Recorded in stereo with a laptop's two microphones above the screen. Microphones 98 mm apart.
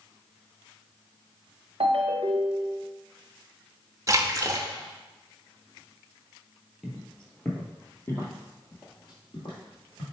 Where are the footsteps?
Centre (ahead or behind), 1.2 m; by 10.0 s 60° left (ahead or behind), 2 m.